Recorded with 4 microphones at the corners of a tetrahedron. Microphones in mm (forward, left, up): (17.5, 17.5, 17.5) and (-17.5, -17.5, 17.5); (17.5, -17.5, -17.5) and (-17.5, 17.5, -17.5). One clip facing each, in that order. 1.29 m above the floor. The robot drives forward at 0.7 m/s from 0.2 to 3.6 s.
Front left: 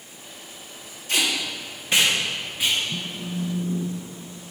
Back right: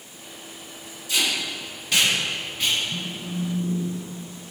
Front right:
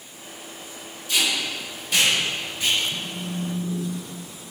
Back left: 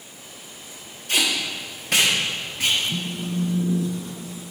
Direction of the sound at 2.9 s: 115° left.